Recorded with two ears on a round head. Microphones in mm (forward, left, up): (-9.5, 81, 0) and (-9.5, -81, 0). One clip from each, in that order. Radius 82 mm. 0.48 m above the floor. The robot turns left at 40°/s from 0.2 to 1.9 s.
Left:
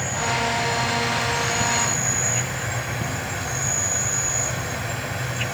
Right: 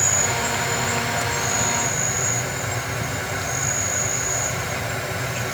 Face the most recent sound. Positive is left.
turn(degrees=-155)